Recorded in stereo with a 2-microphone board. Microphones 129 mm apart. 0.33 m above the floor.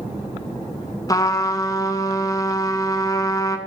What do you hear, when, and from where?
1.1 s a trumpet: 25° left (ahead or behind), 0.7 m